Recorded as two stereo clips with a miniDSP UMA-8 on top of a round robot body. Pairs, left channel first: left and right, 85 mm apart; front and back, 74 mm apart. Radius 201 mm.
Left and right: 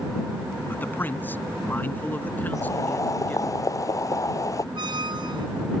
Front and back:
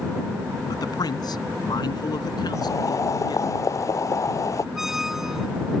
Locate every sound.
0.7 s a man speaking: 25° left; by 3.5 s 20° left
2.5 s boiling: 40° left
4.8 s a squeak: 95° right